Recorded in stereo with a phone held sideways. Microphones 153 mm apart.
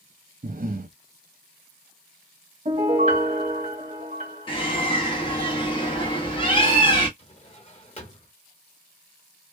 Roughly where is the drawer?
Left.